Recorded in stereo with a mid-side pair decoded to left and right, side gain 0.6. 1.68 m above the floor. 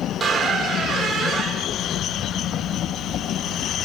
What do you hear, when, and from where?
0.2 s a squeak: 35° right, 1.9 m